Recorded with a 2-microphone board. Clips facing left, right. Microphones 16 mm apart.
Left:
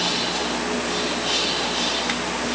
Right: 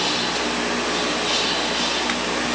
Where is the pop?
No pop in this recording.